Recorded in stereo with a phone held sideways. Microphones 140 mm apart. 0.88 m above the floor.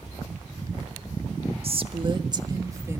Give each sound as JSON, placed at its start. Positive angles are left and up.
{"t": 1.6, "sound": "a woman speaking", "side_deg": -45, "distance_m": 1.4}